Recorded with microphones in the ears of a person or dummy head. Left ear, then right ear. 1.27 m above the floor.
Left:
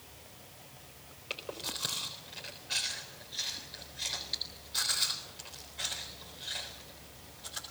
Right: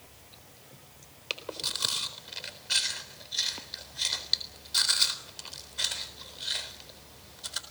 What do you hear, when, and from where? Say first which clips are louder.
1.3 s chewing: right 5 dB; 40° right (ahead or behind), 4 m